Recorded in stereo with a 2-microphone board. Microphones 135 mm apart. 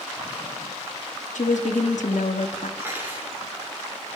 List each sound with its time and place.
1.4 s a woman speaking: 75° left (ahead or behind), 0.7 m
2.8 s cutlery clinking: 20° right (ahead or behind), 2.5 m